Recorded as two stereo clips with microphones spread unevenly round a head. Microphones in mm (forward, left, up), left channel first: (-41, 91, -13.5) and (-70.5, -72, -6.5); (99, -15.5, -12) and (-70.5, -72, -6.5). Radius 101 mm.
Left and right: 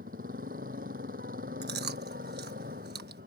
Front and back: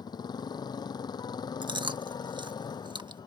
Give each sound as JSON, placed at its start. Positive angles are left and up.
{"t": 0.0, "sound": "a motorcycle", "azimuth_deg": -50}
{"t": 1.6, "sound": "chewing", "azimuth_deg": -100}